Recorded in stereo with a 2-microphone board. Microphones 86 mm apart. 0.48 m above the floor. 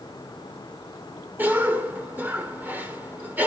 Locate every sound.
1.4 s a cough: 20° right (ahead or behind), 1.3 m